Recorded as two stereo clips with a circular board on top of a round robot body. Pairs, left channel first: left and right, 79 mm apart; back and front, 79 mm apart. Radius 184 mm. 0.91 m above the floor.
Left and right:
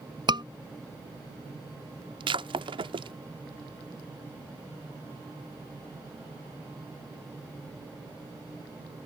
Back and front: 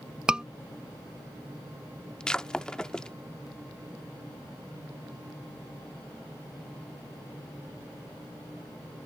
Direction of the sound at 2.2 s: 100° right.